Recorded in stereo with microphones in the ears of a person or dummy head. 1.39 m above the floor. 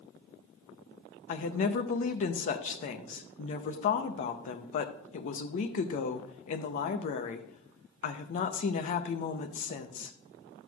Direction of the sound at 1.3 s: 40° left (ahead or behind).